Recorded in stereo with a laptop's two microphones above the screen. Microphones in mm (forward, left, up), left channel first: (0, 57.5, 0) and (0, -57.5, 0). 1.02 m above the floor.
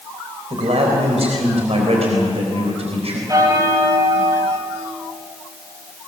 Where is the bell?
30° right (ahead or behind), 3.5 m.